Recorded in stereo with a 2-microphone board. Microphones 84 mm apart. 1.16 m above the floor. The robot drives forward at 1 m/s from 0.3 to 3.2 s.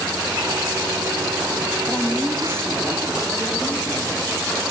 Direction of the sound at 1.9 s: 15° left (ahead or behind).